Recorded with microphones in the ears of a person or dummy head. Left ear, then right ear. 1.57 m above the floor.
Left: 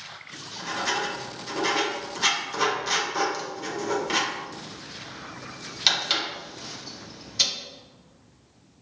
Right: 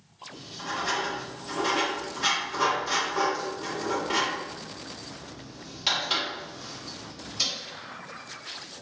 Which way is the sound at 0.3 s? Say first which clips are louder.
Left 1 dB; 35° left (ahead or behind).